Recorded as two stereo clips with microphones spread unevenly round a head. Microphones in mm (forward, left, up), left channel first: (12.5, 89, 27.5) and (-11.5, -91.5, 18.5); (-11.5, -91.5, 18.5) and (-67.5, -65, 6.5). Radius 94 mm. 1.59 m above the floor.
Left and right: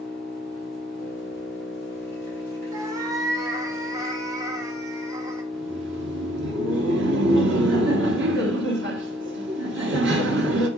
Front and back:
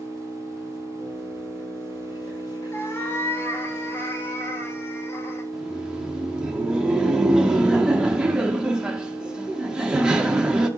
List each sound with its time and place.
0.0 s an engine running: 5° left, 6 m
2.7 s a cat meowing: 30° right, 1.2 m
5.5 s laughter: 125° right, 1.9 m